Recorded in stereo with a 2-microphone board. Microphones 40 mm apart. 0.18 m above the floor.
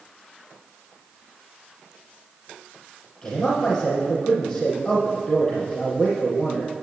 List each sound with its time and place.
3.2 s a man speaking: 15° left (ahead or behind), 3.5 m